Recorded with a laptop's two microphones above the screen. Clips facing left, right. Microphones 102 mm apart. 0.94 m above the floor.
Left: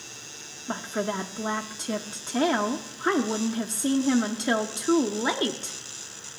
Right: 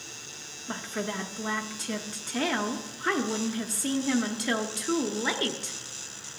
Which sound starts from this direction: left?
A woman speaking, at 0.7 s.